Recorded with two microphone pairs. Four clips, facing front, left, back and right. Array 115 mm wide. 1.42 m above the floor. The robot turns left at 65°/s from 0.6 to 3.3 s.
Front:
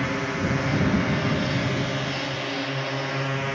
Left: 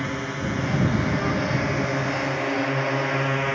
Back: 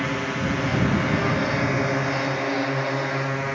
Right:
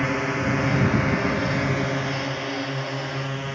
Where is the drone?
110° right; by 3.5 s 95° left.